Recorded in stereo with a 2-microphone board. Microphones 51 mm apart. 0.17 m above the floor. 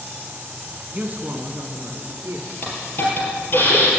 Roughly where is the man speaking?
Right.